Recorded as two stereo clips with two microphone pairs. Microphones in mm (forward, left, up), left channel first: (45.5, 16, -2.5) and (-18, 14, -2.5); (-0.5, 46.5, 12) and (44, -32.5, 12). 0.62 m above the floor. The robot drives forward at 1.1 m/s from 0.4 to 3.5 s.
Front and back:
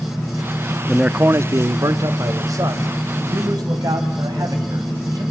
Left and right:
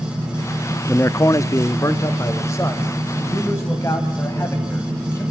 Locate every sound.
0.9 s a man speaking: 85° left, 0.5 m; by 5.2 s 175° left, 3 m